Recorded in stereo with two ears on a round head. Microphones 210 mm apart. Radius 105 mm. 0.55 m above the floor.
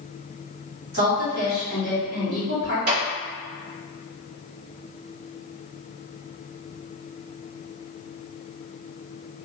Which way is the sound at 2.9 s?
50° right (ahead or behind).